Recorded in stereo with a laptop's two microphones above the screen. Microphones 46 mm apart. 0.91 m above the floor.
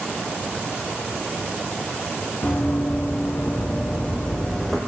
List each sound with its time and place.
2.4 s running footsteps: 55° left (ahead or behind), 2.5 m; by 4.8 s 5° left (ahead or behind), 2.5 m